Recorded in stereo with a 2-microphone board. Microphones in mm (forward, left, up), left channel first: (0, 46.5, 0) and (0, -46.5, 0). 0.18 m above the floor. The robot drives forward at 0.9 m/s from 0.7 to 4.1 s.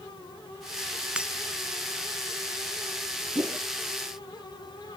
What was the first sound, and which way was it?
Breaking glass, 10° right (ahead or behind).